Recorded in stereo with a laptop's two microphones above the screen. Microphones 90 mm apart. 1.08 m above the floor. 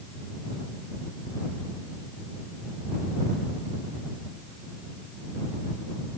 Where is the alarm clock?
No alarm clock in this recording.